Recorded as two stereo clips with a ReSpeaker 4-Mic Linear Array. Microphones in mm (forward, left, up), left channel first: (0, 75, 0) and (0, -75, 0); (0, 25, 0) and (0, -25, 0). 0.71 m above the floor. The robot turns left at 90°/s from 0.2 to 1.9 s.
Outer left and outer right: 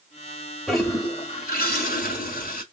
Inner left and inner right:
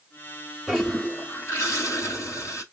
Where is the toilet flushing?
175° right, 1.7 m; by 2.6 s 75° left, 1.7 m.